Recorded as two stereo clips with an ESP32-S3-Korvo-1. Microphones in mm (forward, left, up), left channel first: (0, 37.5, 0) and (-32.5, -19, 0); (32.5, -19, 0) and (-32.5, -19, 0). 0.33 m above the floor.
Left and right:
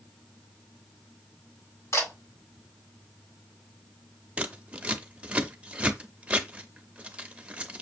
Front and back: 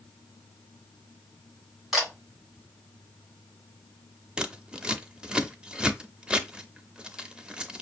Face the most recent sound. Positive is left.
turn(degrees=-140)